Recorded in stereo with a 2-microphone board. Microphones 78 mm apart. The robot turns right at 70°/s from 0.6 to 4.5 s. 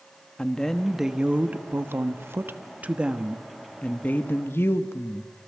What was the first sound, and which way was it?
A woman speaking, 165° left.